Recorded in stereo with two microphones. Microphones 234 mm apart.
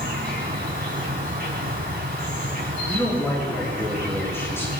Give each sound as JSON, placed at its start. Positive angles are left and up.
{"t": 0.0, "sound": "an insect", "side_deg": -40, "distance_m": 4.0}
{"t": 2.9, "sound": "a man speaking", "side_deg": 10, "distance_m": 5.5}